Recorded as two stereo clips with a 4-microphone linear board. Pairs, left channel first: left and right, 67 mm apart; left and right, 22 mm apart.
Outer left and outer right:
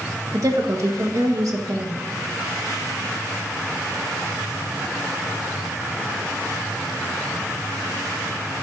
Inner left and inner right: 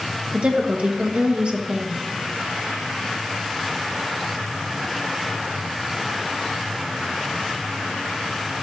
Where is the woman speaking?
55° right (ahead or behind), 1.3 m.